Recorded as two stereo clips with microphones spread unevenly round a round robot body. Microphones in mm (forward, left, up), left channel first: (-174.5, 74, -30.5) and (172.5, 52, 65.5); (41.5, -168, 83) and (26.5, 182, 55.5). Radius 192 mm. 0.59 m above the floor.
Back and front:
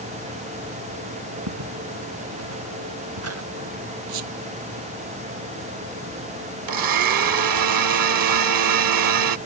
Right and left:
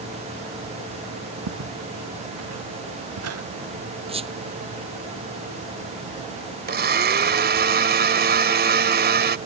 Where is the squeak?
20° left.